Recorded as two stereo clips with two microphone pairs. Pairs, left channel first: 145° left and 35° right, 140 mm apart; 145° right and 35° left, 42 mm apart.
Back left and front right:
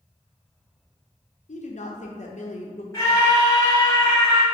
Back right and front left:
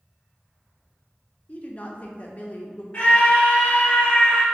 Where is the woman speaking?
165° left, 0.7 m.